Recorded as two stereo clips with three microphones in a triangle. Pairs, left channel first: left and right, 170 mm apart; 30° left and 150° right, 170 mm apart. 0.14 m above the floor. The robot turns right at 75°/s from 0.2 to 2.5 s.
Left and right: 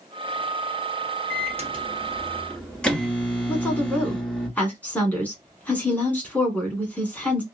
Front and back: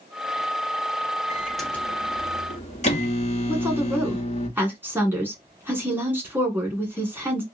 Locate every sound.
1.3 s a microwave: 80° right, 1.2 m; by 4.5 s 10° left, 1.2 m
3.5 s a woman speaking: 155° left, 1.2 m